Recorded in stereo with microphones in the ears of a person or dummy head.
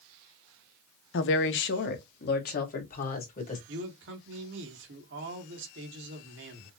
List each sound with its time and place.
1.1 s a woman speaking: 60° left (ahead or behind), 0.6 m; by 3.6 s 45° left (ahead or behind), 1.7 m
3.7 s a man speaking: 65° right (ahead or behind), 1.5 m